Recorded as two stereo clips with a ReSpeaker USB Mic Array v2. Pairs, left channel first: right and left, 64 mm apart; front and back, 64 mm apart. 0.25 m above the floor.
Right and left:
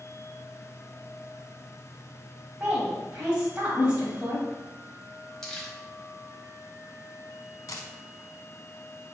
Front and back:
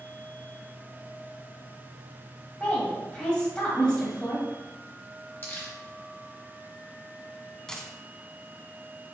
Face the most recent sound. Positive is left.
turn(degrees=-80)